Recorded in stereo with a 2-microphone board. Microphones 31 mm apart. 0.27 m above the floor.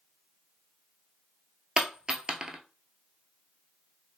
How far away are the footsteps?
I don't hear footsteps.